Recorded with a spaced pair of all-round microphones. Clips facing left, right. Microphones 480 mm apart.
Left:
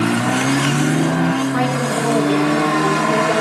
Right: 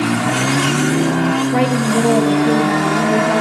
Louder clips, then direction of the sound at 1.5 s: Right 4 dB; 80° right.